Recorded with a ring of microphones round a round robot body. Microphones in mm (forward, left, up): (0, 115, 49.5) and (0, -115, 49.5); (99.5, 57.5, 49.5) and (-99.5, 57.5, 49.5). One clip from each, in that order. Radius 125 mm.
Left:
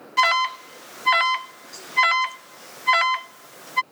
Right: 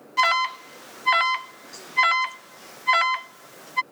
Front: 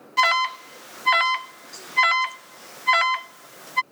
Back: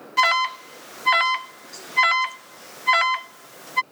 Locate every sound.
0.2 s an alarm: 90° left